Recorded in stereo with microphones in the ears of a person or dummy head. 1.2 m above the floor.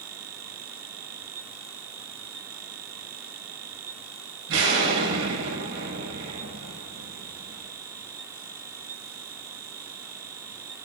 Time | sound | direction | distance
4.5 | an explosion | 70° right (ahead or behind) | 8 m